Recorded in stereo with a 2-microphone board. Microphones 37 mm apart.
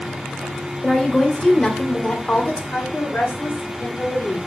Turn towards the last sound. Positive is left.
turn(degrees=65)  # may be behind; listen again after turning